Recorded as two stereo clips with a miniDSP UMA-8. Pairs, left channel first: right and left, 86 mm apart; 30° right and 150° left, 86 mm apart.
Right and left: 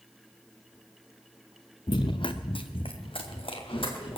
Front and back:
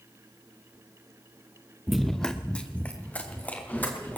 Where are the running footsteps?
125° right, 0.8 m; by 4.2 s 100° right, 4.5 m.